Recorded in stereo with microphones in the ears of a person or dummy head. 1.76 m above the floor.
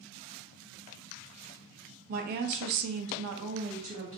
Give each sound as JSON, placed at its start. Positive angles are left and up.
{"t": 2.1, "sound": "a woman speaking", "side_deg": -45, "distance_m": 0.7}